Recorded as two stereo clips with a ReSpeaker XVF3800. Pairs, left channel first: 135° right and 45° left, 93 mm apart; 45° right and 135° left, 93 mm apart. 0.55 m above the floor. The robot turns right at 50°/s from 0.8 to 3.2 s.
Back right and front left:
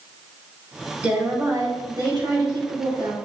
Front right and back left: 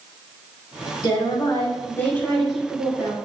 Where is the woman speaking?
30° right, 2.5 m; by 3.2 s 75° left, 2.5 m.